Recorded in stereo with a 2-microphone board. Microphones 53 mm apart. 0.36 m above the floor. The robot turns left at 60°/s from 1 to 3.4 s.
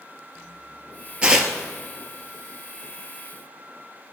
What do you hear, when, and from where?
1.2 s tearing paper: 20° right (ahead or behind), 1.0 m; by 1.5 s 5° right (ahead or behind), 1.0 m